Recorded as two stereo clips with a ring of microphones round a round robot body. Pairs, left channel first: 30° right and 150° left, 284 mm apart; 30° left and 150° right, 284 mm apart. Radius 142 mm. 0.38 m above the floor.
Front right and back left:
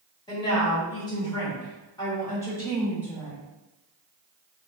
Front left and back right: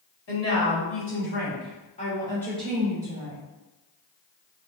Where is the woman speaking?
45° left, 1.7 m; by 3.4 s 115° right, 1.1 m.